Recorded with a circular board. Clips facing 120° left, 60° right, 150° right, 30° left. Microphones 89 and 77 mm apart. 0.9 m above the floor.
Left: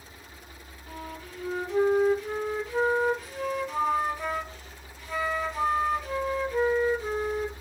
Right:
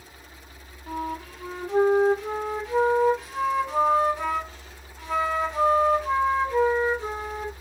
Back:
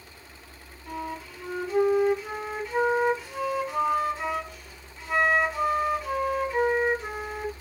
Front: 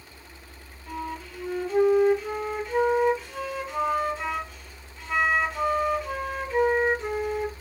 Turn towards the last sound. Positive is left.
turn(degrees=-65)